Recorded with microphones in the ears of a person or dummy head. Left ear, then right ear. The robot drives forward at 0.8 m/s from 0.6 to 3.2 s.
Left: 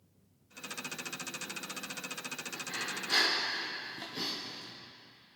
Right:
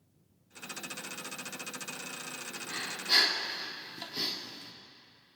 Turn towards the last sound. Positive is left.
turn(degrees=-25)  # may be behind; listen again after turning